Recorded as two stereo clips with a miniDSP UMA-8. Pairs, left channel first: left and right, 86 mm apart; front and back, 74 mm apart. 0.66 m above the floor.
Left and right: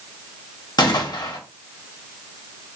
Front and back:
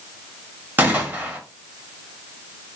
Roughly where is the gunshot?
Behind left.